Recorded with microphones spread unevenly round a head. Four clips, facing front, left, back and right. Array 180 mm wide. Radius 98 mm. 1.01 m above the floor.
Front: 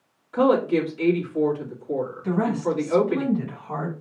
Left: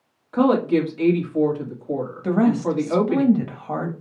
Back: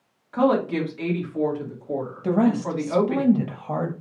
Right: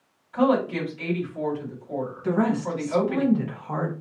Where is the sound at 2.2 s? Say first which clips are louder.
Left 5 dB, back 4 dB; 145° left, 1.6 m.